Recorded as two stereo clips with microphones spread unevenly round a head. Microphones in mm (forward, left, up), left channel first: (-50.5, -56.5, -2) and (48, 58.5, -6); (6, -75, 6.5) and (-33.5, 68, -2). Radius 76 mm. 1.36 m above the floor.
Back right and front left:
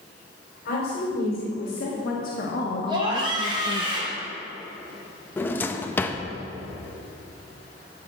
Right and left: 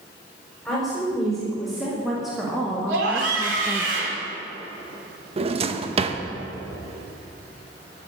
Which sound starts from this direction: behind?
A woman speaking, at 0.7 s.